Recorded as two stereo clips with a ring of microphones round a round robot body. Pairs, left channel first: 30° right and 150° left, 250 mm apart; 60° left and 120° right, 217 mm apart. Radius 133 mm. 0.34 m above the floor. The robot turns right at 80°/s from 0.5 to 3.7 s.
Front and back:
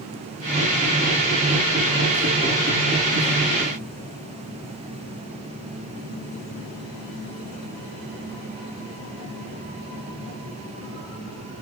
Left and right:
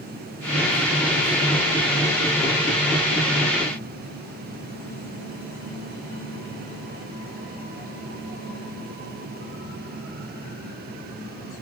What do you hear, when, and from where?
Only background noise.